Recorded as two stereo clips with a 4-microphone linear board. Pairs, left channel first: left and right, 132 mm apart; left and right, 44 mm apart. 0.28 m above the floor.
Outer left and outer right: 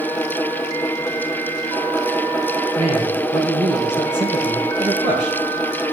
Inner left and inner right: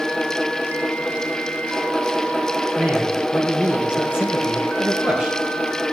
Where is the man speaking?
35° right (ahead or behind), 4 m.